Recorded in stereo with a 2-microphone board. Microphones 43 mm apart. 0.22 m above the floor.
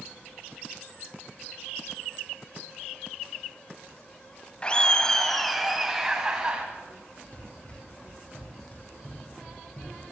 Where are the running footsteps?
30° left (ahead or behind), 5 m; by 10.1 s 45° left (ahead or behind), 6.5 m.